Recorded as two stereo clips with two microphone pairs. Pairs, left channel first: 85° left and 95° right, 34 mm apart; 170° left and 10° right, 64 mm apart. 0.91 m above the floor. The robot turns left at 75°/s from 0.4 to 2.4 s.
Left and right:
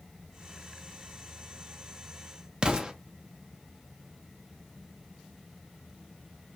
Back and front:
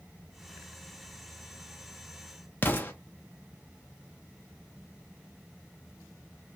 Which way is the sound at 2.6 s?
145° right.